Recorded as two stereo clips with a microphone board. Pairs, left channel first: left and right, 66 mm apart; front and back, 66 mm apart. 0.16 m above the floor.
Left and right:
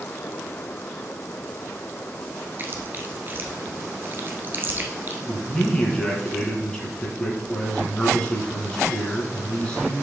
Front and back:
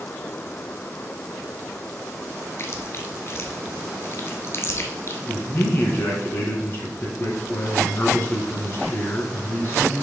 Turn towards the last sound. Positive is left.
turn(degrees=20)